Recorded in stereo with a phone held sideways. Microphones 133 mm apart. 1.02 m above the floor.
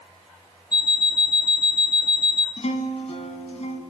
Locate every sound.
0.7 s an alarm clock: 30° left (ahead or behind), 0.5 m
2.6 s a guitar: 55° left (ahead or behind), 1.7 m